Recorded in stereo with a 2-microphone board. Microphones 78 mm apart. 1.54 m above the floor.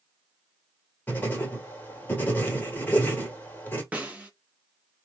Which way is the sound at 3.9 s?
15° right (ahead or behind).